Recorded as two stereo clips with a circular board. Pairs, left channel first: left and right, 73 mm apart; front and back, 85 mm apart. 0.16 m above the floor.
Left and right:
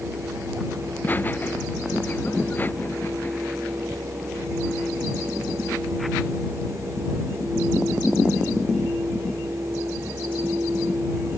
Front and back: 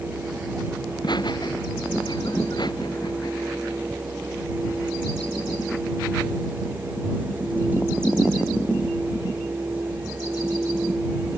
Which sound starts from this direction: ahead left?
Laughter, at 0.9 s.